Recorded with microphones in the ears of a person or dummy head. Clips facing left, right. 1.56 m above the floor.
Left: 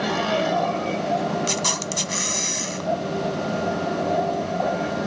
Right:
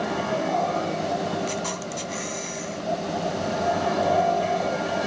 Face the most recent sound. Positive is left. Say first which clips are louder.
# left 2 dB
turn(degrees=55)  # may be behind; listen again after turning